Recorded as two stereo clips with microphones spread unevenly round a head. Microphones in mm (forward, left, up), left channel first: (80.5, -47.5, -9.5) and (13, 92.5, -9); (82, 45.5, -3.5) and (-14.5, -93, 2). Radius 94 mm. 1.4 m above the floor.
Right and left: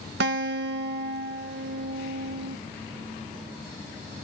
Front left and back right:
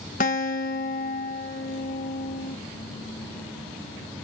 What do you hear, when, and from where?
0.2 s a guitar: 105° left, 1.5 m